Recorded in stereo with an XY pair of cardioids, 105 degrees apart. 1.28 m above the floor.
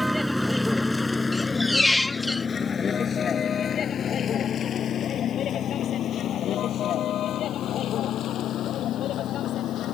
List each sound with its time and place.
0.0 s a vehicle: 5° right; by 9.9 s 70° left
1.3 s a squeak: 10° left